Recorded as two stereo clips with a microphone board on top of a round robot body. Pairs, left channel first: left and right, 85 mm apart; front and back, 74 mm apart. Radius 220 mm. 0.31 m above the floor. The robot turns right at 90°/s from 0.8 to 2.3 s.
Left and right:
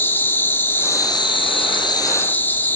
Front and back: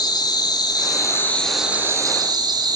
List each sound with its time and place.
0.0 s an insect: 25° left, 1.6 m; by 2.8 s 160° left, 1.6 m